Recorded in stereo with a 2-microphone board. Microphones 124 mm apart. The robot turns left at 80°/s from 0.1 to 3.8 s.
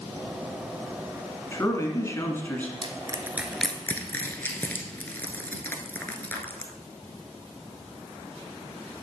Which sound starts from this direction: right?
Crushing, at 2.8 s.